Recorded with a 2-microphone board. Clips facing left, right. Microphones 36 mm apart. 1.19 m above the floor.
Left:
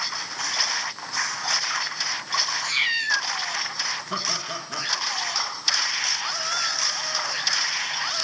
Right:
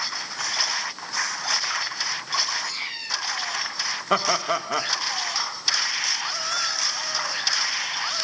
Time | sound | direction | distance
2.6 | a cat meowing | 55° left (ahead or behind) | 2.5 m
4.1 | laughter | 70° right (ahead or behind) | 1.3 m